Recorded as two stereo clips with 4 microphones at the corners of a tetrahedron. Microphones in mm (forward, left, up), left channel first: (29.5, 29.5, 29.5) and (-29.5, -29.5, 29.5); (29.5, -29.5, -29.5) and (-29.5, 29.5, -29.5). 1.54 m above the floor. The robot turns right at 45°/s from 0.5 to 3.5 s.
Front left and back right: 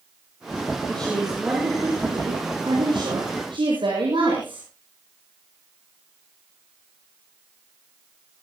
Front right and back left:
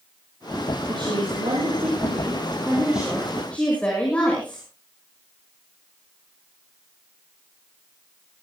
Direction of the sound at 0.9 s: 120° left.